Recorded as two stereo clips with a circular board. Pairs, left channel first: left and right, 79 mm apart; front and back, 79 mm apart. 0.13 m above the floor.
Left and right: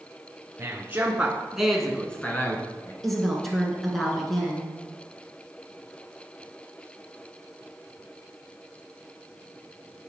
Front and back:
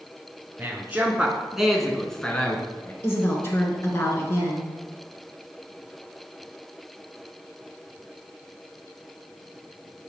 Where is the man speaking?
125° right, 1.3 m; by 2.9 s 55° left, 1.3 m.